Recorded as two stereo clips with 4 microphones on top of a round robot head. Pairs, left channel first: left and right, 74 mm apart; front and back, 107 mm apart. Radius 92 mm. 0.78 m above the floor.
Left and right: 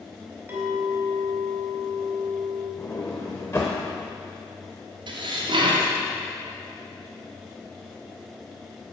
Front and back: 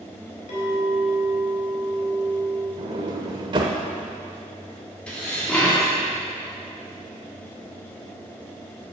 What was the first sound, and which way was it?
A clink, 25° right.